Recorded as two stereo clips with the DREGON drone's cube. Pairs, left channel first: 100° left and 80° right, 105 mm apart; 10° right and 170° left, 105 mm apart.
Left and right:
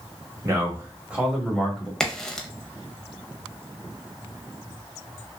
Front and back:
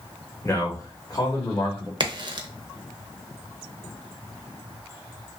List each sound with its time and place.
0.4 s a man speaking: 50° right, 1.0 m; by 1.9 s 20° left, 1.2 m
2.0 s a crack: straight behind, 0.5 m